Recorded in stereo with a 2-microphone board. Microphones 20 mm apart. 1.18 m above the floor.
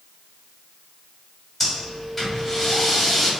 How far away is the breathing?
About 1.7 m.